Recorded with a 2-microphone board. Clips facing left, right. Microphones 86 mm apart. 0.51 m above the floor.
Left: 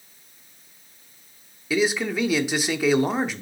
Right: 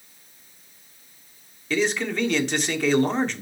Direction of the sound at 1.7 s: 5° left (ahead or behind).